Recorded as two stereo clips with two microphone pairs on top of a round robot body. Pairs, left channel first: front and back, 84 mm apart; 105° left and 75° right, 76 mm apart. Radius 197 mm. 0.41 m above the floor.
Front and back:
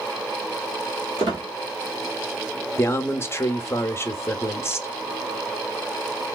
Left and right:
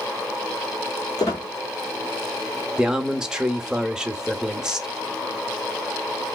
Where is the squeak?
155° left, 0.9 m.